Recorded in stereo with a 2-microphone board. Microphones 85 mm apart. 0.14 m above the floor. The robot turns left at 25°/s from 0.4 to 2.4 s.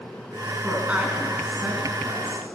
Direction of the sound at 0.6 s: 15° right (ahead or behind).